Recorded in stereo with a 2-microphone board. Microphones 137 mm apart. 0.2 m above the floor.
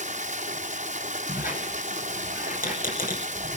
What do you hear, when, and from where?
0.0 s running water: 60° right (ahead or behind), 1.9 m
1.3 s a squeak: 85° left, 3 m